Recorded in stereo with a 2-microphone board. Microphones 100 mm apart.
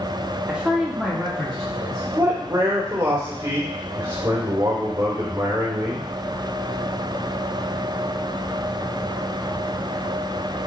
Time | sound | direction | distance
0.5 | a man speaking | 10° right (ahead or behind) | 1.0 m
2.1 | a man speaking | 40° right (ahead or behind) | 2 m